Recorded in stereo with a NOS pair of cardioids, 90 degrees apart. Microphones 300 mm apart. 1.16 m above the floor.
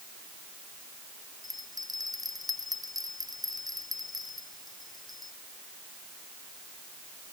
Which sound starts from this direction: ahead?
A bell, at 1.4 s.